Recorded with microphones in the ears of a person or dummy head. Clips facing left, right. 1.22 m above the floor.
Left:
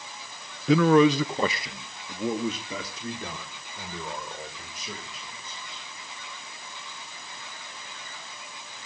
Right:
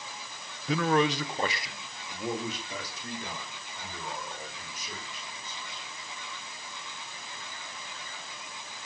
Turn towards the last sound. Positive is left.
turn(degrees=65)  # may be behind; listen again after turning